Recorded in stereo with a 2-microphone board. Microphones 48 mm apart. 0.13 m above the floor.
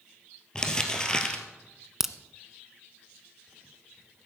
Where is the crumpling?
15° left (ahead or behind), 1.5 m.